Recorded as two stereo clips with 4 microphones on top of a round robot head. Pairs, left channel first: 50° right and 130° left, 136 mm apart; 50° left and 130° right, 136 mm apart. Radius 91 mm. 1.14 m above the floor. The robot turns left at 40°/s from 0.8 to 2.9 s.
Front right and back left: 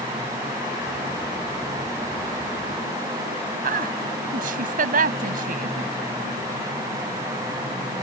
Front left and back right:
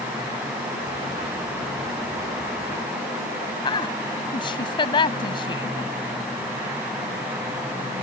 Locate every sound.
3.6 s a woman speaking: 105° left